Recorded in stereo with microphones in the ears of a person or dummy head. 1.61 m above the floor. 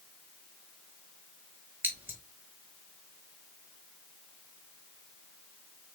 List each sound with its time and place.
1.8 s scissors: 10° right (ahead or behind), 1.0 m